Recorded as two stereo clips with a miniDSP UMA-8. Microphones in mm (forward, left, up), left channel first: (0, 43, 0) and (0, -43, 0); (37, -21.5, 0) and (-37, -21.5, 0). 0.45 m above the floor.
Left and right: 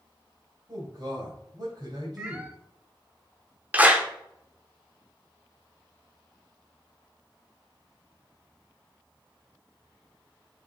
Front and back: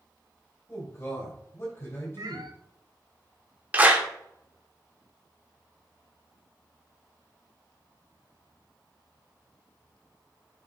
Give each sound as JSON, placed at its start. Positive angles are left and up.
{"t": 0.7, "sound": "a man speaking", "azimuth_deg": -65, "distance_m": 2.5}
{"t": 2.2, "sound": "a cat meowing", "azimuth_deg": -165, "distance_m": 0.9}
{"t": 3.7, "sound": "a clap", "azimuth_deg": -140, "distance_m": 0.9}